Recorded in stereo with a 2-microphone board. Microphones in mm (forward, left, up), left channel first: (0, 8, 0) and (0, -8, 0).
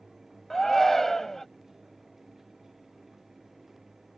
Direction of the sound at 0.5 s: 25° left (ahead or behind).